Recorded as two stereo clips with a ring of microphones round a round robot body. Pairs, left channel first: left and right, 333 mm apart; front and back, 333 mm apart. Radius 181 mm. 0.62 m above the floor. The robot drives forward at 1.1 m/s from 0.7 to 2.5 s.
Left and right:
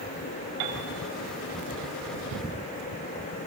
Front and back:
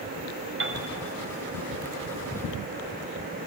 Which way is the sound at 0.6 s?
130° right.